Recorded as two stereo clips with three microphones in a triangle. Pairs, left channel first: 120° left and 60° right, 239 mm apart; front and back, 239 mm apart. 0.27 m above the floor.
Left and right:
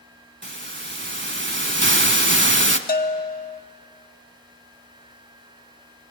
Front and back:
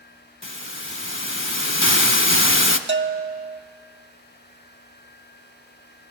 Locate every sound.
0.4 s a hiss: 25° right, 0.8 m
2.9 s a bell: 160° left, 0.7 m